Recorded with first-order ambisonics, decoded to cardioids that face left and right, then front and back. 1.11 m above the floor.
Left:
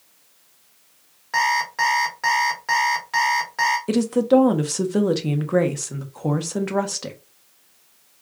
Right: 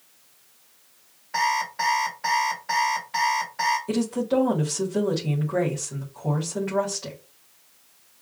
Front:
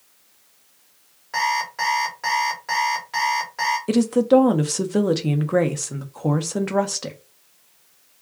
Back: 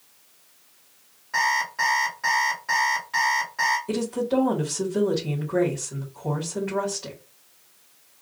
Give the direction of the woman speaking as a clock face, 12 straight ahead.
11 o'clock.